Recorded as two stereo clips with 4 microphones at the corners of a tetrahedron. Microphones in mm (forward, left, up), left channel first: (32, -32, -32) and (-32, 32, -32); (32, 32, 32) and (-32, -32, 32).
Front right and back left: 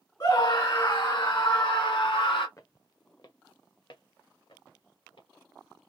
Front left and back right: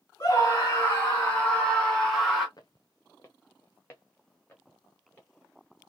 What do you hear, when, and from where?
0.2 s a scream: 5° right, 2.5 m; by 2.5 s 50° right, 2 m
2.6 s footsteps: 5° left, 0.8 m; by 5.3 s 25° right, 3 m